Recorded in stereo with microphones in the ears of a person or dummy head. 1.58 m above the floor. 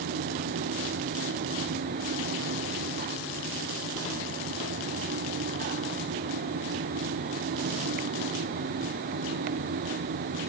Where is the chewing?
I don't hear chewing.